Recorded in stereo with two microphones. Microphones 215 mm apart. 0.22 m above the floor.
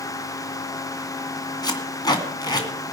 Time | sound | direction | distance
1.6 | tape being pulled | 20° left (ahead or behind) | 2 m